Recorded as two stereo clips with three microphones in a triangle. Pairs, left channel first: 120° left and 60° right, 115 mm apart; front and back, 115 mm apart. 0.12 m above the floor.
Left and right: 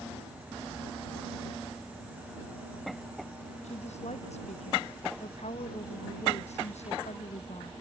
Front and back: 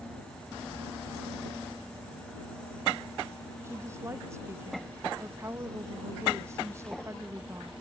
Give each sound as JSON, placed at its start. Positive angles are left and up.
{"t": 3.6, "sound": "a woman speaking", "azimuth_deg": 115}